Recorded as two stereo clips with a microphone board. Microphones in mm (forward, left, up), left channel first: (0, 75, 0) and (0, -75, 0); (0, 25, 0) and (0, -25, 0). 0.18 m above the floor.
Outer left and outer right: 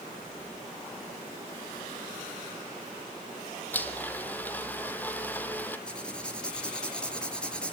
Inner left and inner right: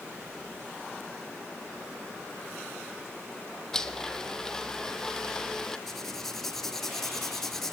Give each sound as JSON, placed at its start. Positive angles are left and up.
{"t": 3.7, "sound": "a blender", "side_deg": 10, "distance_m": 2.5}
{"t": 5.9, "sound": "writing", "side_deg": 5, "distance_m": 3.5}